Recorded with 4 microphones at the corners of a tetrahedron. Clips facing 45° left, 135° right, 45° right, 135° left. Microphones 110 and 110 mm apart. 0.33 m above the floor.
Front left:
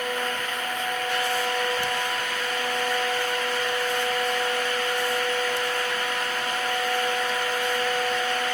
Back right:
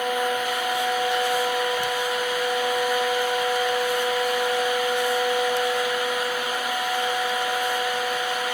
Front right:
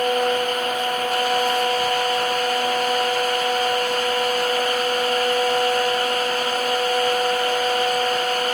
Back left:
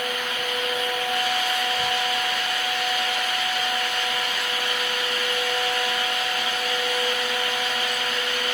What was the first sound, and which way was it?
Only background noise.